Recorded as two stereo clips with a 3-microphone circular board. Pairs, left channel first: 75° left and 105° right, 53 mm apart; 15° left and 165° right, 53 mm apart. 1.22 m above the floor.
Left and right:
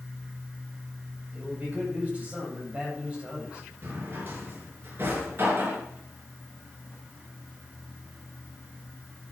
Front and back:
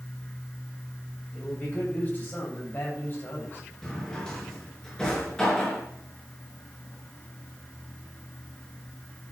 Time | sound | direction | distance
1.3 | a man speaking | 45° right | 7.5 m
3.8 | a drawer | 60° right | 5 m